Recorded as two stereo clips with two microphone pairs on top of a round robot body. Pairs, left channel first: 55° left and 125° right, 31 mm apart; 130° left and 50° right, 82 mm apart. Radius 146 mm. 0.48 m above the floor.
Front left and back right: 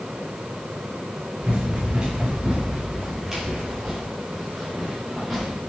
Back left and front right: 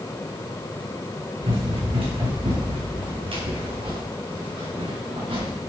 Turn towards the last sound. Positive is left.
turn(degrees=-35)